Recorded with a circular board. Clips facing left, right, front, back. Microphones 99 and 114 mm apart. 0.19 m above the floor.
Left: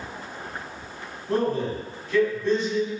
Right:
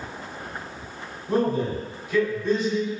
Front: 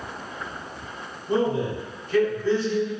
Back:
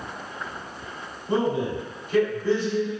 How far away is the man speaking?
About 1.0 m.